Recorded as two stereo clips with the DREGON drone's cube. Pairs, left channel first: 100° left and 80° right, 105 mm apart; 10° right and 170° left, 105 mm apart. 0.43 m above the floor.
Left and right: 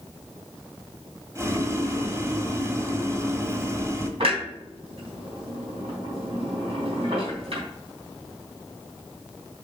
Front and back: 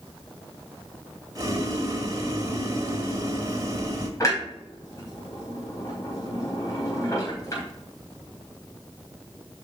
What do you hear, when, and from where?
1.4 s boiling: 135° right, 1.4 m
4.2 s a clunk: 65° right, 4 m